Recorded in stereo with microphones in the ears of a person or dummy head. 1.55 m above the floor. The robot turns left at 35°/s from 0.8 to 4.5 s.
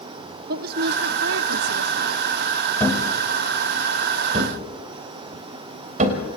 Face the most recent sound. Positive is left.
turn(degrees=-40)  # may be behind; listen again after turning